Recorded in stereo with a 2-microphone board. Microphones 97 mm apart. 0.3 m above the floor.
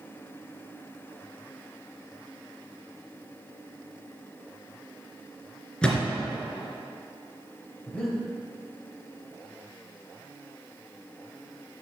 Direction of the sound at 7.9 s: 10° left (ahead or behind).